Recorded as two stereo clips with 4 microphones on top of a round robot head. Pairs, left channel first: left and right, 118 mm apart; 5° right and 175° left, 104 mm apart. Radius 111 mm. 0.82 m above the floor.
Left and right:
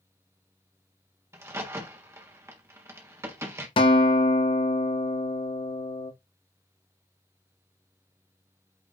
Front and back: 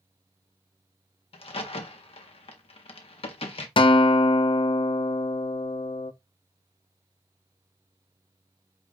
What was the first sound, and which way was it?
A crack, 25° right.